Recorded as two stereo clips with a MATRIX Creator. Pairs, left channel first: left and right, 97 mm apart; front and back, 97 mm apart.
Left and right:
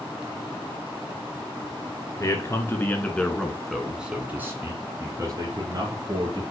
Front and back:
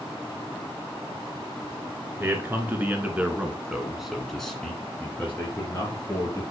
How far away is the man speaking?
About 2 m.